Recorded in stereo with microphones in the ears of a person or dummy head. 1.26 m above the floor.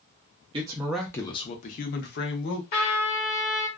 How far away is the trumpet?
About 1.1 m.